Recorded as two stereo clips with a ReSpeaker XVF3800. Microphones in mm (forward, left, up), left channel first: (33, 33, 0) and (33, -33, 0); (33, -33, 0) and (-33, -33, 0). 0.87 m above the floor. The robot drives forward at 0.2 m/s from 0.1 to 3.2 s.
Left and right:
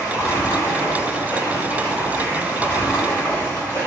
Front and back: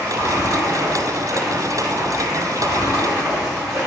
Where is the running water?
135° left, 1.3 m; by 3.9 s 150° left, 1.8 m.